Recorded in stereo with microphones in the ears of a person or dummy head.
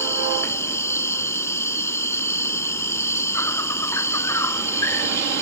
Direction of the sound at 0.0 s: 15° left (ahead or behind).